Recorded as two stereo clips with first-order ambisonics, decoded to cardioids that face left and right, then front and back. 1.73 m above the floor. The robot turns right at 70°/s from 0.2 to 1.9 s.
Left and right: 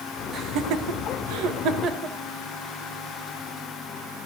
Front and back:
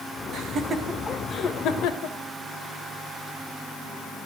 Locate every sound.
0.3 s laughter: 140° right, 2 m; by 2.2 s 30° right, 2 m